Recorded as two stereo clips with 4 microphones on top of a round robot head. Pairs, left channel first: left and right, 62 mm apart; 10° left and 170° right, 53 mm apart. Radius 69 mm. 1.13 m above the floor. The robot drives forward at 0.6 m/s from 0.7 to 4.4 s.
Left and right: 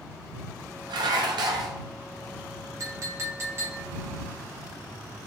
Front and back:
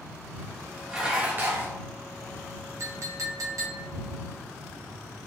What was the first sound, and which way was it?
Dishes clattering, 90° right.